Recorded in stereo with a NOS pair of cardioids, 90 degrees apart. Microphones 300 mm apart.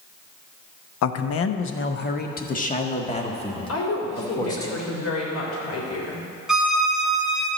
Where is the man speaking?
60° left, 0.9 m; by 4.7 s 10° left, 2.5 m.